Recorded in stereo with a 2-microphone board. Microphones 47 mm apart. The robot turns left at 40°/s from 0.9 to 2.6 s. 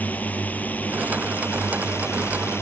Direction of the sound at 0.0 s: 140° left.